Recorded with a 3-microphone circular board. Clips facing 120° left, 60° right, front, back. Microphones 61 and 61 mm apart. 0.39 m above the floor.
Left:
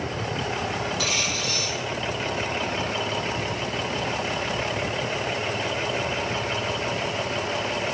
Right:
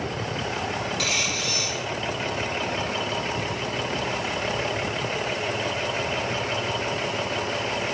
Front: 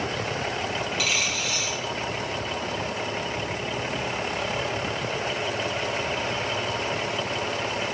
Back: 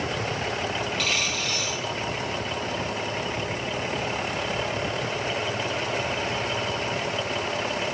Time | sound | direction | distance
1.0 | a dropped coin | 85° right | 4 m